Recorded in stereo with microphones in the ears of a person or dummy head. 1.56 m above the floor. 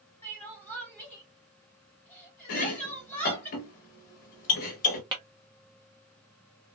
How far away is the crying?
About 2 m.